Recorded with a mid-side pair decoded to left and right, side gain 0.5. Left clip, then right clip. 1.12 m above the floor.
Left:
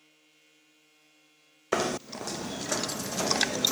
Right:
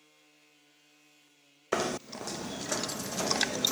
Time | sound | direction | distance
1.7 | knocking | 15° left | ?